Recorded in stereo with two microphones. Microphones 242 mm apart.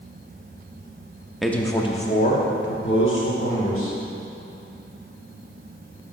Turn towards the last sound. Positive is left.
turn(degrees=70)  # may be behind; listen again after turning